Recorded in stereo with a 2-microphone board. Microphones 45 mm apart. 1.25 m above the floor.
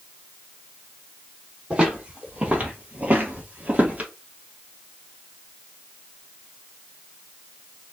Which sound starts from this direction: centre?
Footsteps, at 1.7 s.